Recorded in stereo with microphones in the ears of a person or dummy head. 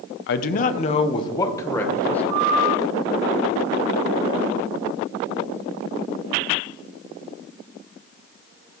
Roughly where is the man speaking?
Left.